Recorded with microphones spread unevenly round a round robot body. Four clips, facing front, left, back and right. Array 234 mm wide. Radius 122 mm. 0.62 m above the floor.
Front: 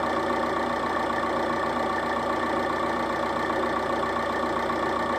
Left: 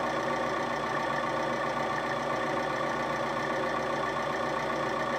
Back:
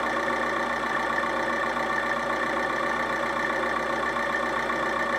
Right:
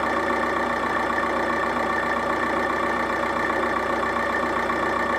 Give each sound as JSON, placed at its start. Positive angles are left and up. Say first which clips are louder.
{"t": 0.0, "sound": "an engine running", "louder": "right 7 dB, front 1 dB", "azimuth_deg": -70, "distance_m": 1.0}